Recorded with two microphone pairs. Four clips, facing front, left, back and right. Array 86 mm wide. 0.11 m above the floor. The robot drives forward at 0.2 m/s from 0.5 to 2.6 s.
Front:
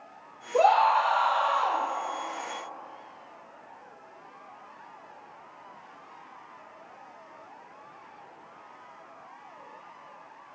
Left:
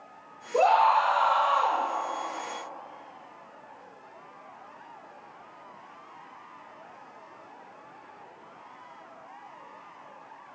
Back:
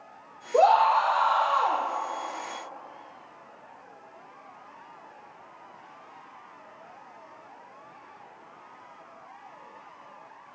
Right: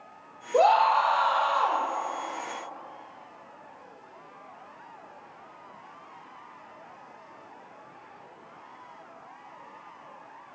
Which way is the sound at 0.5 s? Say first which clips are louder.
Even, back 1 dB; 145° right.